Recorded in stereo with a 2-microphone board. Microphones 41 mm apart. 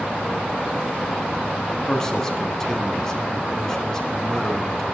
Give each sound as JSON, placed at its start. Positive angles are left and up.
{"t": 1.9, "sound": "a man speaking", "side_deg": 15, "distance_m": 1.3}